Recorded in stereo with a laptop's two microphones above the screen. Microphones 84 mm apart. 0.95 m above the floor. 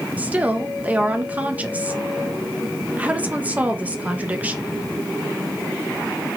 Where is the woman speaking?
15° right (ahead or behind), 0.7 m.